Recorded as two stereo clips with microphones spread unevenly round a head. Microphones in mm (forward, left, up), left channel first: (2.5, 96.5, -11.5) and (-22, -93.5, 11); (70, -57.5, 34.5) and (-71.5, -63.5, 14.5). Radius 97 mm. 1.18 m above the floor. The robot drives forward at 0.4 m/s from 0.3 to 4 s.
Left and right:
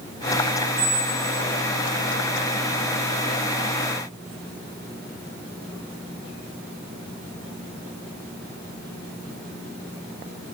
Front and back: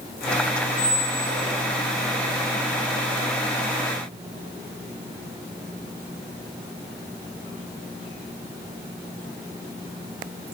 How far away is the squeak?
About 5.5 m.